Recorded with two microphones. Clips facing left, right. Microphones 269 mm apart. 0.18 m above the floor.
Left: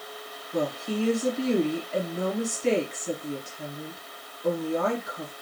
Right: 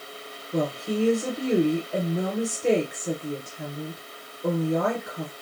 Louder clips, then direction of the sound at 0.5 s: Right 2 dB; 60° right (ahead or behind).